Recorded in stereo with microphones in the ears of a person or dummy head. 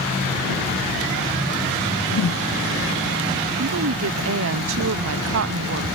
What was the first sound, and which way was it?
A whoosh, 65° left (ahead or behind).